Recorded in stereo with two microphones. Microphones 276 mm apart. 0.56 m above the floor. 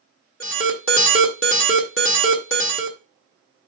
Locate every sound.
0.4 s an alarm: 50° left (ahead or behind), 1.4 m